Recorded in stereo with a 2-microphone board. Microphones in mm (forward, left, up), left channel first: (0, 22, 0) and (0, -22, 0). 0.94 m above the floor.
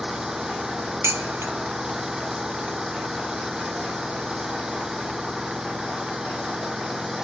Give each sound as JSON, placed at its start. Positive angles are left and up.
{"t": 0.0, "sound": "an engine running", "side_deg": -10}
{"t": 1.0, "sound": "dishes clattering", "side_deg": -80}